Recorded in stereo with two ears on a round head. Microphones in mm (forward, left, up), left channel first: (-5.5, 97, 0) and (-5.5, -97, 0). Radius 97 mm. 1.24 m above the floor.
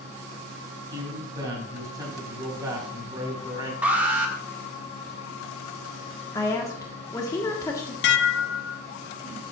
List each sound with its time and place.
0.9 s a man speaking: 15° right (ahead or behind), 4 m
3.8 s an alarm: 5° right (ahead or behind), 1.6 m
6.3 s a woman speaking: 15° left (ahead or behind), 1.2 m
8.0 s dishes clattering: 55° left (ahead or behind), 0.6 m